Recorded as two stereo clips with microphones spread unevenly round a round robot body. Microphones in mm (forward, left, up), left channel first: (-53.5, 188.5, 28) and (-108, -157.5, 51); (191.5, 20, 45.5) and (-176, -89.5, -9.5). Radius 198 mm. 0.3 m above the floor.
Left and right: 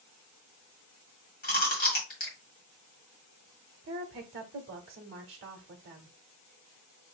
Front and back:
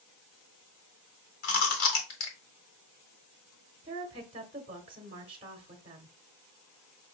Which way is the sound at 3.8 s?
115° right.